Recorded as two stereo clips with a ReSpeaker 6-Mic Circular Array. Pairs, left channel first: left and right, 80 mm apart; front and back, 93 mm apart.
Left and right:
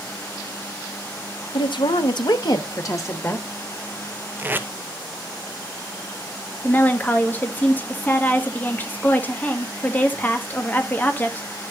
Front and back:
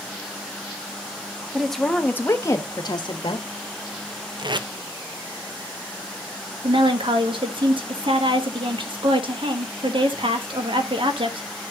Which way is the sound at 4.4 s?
150° right.